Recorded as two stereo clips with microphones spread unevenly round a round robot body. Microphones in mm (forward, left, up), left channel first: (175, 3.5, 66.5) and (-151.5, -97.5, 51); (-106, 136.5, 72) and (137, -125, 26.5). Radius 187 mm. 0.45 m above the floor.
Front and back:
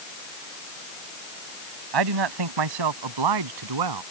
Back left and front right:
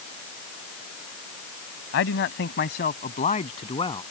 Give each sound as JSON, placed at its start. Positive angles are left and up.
{"t": 1.9, "sound": "a man speaking", "azimuth_deg": -170}